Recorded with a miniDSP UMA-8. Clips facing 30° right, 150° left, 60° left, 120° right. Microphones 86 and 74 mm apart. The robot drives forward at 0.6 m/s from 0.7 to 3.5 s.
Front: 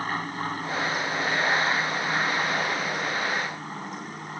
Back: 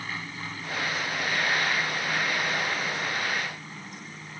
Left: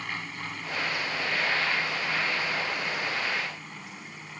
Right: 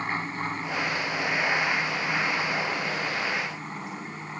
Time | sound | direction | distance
0.0 | an aircraft | 65° right | ?